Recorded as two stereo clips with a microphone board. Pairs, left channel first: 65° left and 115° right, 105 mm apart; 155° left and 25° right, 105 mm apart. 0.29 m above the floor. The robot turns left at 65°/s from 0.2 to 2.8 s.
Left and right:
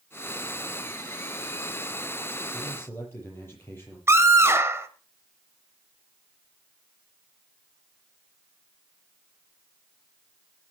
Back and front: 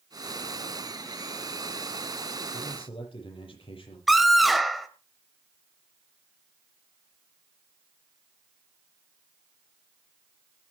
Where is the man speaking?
150° left, 8.5 m; by 4.0 s 135° left, 8.5 m.